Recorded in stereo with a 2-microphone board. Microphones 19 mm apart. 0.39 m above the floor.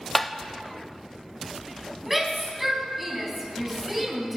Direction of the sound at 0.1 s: 5° left (ahead or behind).